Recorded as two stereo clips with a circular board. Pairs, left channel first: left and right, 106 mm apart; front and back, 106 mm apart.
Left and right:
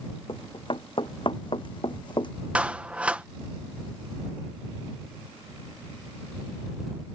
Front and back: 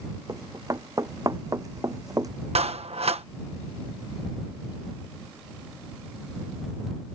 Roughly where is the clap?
Behind.